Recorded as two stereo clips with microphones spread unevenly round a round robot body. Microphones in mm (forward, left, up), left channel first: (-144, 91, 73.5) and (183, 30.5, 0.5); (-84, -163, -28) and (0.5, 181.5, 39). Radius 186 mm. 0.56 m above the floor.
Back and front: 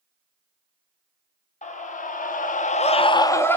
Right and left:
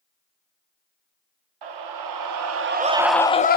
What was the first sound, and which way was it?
A scream, 95° left.